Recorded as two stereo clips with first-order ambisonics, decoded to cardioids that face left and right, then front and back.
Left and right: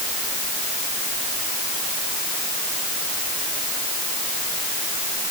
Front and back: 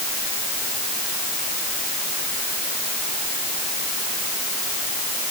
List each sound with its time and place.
Only background noise.